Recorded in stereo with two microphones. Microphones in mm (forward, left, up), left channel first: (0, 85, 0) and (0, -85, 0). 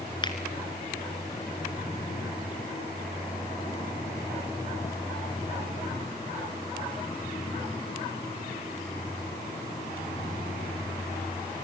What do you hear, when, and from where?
0.2 s a finger snap: 30° left (ahead or behind), 1.7 m